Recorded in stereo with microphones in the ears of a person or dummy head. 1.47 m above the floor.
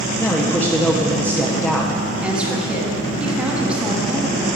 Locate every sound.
0.2 s a man speaking: 10° left (ahead or behind), 0.7 m
2.2 s a woman speaking: 5° right (ahead or behind), 1.1 m